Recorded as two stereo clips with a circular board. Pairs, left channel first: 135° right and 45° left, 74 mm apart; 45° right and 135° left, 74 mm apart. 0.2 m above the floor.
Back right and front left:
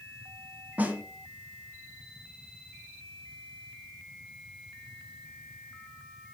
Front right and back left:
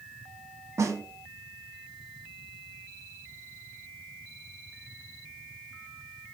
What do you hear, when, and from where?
0.8 s a snare drum: 110° left, 0.6 m